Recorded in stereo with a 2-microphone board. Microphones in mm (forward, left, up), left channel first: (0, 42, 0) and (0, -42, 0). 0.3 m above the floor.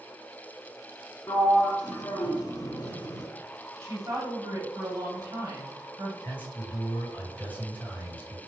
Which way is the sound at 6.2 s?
20° left (ahead or behind).